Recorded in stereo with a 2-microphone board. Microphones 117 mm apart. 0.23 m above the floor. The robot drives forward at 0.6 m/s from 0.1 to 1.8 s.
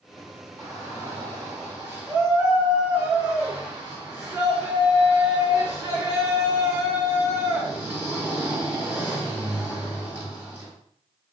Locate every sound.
0.6 s a shout: 20° right (ahead or behind), 2 m; by 10.7 s 15° right (ahead or behind), 3 m